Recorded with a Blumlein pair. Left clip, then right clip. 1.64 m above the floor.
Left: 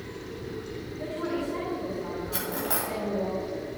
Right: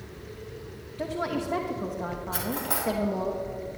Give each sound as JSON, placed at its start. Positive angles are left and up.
{"t": 1.0, "sound": "a woman speaking", "azimuth_deg": -35, "distance_m": 1.3}
{"t": 2.3, "sound": "cutlery clinking", "azimuth_deg": 5, "distance_m": 2.5}